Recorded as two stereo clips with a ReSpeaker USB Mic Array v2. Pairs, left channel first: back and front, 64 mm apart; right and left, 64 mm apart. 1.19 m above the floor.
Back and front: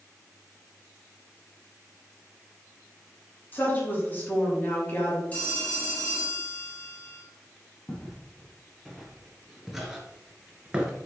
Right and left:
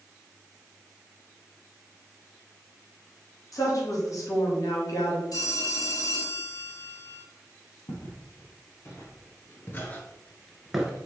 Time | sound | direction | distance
3.5 | a woman speaking | 120° right | 2.5 m
5.3 | a phone ringing | 110° right | 2.0 m
7.9 | footsteps | 95° right | 2.5 m